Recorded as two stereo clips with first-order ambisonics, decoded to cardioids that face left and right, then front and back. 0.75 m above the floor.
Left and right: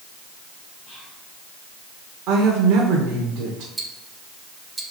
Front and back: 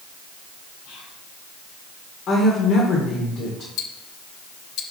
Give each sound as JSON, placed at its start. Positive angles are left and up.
{"t": 0.8, "sound": "whispering", "azimuth_deg": 25, "distance_m": 4.0}
{"t": 2.3, "sound": "a woman speaking", "azimuth_deg": -55, "distance_m": 1.9}
{"t": 3.8, "sound": "ticking", "azimuth_deg": -15, "distance_m": 1.1}